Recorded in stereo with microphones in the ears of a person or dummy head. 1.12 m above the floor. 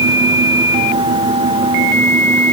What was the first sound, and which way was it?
Only background noise.